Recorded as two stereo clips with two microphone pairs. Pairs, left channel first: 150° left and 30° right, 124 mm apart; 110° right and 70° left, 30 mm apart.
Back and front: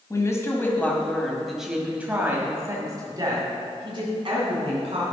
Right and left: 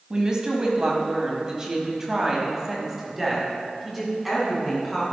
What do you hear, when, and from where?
0.1 s a woman speaking: 110° left, 1.7 m; by 5.1 s 20° right, 2.5 m